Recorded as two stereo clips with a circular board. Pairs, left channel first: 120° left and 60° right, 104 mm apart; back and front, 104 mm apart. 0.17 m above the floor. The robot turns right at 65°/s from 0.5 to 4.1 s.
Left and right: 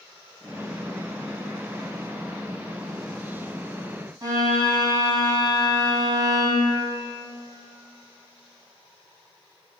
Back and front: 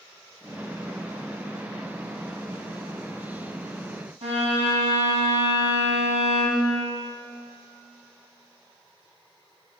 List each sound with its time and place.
4.2 s a violin: 5° right, 2.5 m